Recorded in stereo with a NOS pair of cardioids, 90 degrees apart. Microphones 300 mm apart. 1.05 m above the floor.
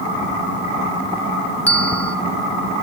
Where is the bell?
5° left, 1.1 m.